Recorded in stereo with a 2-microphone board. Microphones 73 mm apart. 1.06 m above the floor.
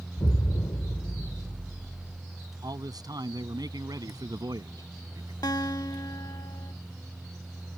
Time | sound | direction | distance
0.2 | an explosion | 65° left (ahead or behind) | ?
2.6 | a man speaking | 65° right (ahead or behind) | ?
5.4 | a guitar | 65° left (ahead or behind) | ?